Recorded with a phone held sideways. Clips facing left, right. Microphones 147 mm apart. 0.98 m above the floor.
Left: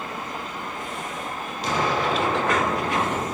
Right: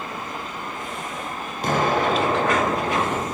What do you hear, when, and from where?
1.6 s an explosion: 55° right (ahead or behind), 1.2 m